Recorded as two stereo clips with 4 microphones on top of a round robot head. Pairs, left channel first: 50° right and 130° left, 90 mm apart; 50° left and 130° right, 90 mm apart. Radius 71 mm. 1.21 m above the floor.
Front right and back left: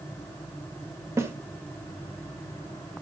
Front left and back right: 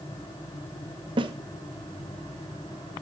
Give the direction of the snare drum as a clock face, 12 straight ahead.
6 o'clock.